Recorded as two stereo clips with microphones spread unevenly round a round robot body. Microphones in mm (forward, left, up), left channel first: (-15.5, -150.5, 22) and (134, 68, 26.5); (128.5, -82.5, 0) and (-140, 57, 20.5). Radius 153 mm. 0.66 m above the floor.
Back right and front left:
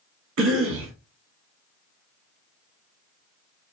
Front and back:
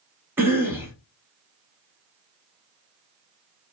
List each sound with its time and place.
0.4 s a cough: 70° left, 1.0 m